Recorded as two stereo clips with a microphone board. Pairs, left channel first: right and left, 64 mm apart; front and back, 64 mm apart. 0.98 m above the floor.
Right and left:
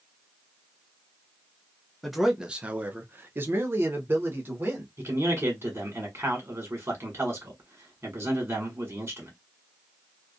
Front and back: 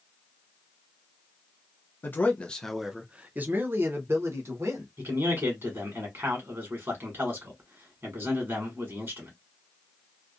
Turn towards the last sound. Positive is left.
turn(degrees=140)